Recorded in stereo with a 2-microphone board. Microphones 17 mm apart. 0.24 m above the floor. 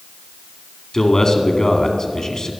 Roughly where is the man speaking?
Left.